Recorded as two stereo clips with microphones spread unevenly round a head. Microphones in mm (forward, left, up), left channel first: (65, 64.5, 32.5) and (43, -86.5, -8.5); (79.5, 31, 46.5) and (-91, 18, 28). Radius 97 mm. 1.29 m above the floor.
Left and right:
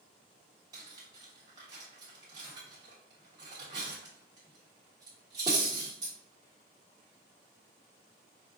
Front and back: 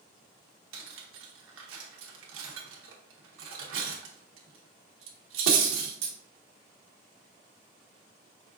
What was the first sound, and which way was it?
Cutlery clinking, 175° right.